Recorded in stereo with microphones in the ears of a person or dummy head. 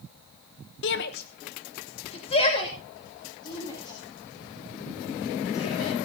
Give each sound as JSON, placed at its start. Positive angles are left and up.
{"t": 0.8, "sound": "a shout", "side_deg": 60, "distance_m": 1.0}